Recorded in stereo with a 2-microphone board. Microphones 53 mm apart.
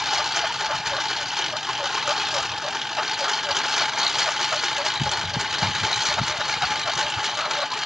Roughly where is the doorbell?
I don't hear a doorbell.